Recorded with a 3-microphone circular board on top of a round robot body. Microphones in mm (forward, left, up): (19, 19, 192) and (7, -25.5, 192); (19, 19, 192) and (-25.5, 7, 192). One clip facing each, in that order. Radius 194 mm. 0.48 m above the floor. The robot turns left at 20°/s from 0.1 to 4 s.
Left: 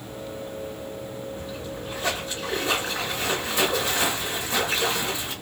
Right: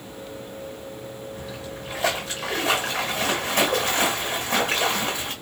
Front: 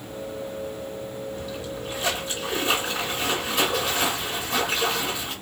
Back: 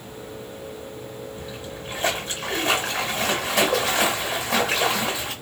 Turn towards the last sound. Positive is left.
turn(degrees=-150)